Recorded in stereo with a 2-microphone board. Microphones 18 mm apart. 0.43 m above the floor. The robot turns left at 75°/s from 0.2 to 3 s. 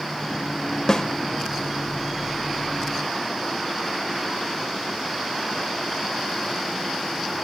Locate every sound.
0.9 s a snare drum: 35° left (ahead or behind), 0.8 m; by 1.1 s 45° left (ahead or behind), 0.8 m